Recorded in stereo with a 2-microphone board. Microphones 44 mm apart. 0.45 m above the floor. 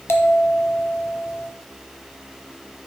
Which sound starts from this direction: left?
A bell, at 0.1 s.